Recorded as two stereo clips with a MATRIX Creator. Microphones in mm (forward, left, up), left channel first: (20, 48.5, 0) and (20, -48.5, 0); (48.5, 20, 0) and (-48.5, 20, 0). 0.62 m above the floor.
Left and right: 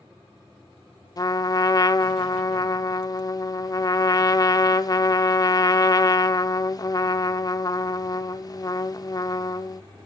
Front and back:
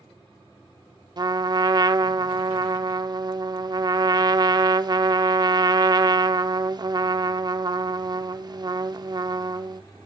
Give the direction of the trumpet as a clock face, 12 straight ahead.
7 o'clock.